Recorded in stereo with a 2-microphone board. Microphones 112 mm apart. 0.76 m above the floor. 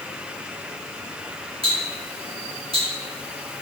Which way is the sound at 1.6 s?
50° right (ahead or behind).